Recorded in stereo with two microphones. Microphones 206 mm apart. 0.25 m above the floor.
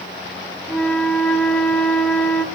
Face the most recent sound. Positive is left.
turn(degrees=5)  # may be behind; listen again after turning